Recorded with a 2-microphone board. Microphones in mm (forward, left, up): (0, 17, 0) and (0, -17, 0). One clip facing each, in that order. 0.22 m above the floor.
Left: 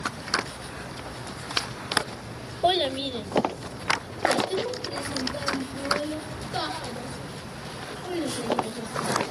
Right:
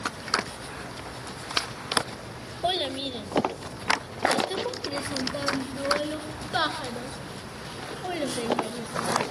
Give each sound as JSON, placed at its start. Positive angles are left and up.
{"t": 2.6, "sound": "a child speaking", "side_deg": 15, "distance_m": 1.0}